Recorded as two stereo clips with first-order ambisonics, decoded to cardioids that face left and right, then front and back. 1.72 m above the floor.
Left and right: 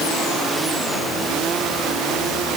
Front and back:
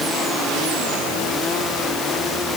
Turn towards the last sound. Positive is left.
No sound to turn to.